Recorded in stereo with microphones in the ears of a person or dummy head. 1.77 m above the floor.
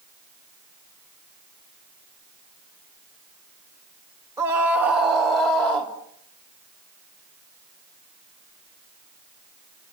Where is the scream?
10° right (ahead or behind), 3 m; by 5.9 s 5° left (ahead or behind), 4 m.